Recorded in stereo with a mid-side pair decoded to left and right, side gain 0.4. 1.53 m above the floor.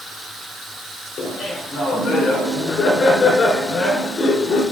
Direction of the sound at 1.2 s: 60° left.